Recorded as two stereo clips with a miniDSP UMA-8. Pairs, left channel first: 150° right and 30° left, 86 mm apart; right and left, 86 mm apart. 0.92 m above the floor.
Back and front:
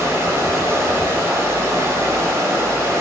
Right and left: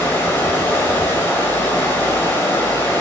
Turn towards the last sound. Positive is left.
turn(degrees=-25)